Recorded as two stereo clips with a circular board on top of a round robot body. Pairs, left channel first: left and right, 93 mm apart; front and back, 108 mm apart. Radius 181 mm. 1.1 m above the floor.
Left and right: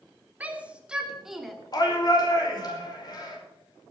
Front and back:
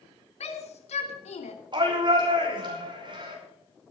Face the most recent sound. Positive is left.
turn(degrees=135)